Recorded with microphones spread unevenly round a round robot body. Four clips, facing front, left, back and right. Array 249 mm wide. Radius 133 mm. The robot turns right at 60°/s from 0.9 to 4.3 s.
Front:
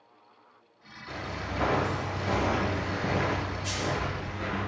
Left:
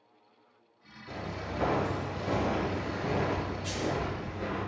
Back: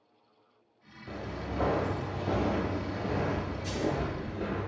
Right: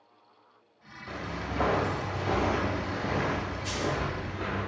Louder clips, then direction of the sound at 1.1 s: Right 2 dB, front 1 dB; 150° right.